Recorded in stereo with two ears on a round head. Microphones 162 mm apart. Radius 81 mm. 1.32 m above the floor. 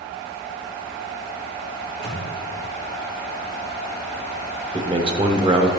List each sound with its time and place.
1.8 s a microwave: 70° right (ahead or behind), 2 m
4.7 s a man speaking: 30° right (ahead or behind), 0.9 m